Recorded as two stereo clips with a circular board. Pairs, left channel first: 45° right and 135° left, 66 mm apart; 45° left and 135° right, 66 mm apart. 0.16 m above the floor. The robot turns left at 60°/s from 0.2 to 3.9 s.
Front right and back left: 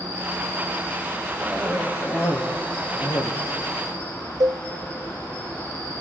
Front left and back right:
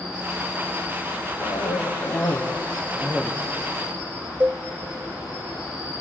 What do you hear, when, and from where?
0.0 s an insect: 115° left, 9.5 m; by 6.0 s 110° right, 9.5 m
1.4 s a cough: 45° left, 5.5 m; by 3.3 s 70° right, 5.5 m
4.4 s a cowbell: 160° left, 1.0 m